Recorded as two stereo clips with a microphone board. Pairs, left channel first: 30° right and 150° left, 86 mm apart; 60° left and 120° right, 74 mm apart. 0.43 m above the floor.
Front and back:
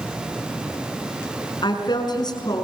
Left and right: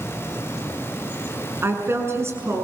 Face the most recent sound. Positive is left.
turn(degrees=-65)